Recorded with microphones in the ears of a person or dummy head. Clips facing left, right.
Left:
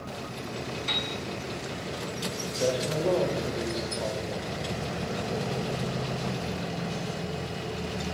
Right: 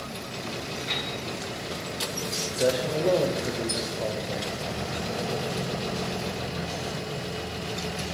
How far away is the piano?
About 3 m.